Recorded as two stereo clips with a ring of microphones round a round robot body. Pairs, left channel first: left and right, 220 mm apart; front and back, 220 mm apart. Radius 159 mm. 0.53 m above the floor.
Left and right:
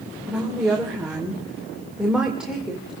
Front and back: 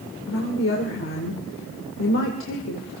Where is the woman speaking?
5° right, 2 m.